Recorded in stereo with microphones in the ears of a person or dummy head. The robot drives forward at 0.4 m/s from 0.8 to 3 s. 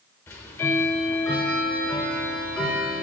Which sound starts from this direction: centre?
Ticking, at 0.3 s.